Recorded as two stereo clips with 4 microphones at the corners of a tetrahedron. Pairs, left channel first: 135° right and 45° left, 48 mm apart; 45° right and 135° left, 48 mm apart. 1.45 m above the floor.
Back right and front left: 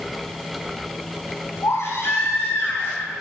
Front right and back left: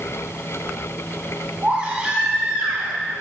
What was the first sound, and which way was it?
A baby crying, 155° right.